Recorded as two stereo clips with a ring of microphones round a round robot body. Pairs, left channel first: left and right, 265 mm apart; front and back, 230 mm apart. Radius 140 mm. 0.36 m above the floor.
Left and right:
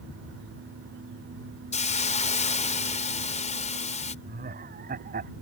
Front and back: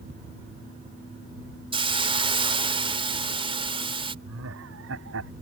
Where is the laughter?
145° right.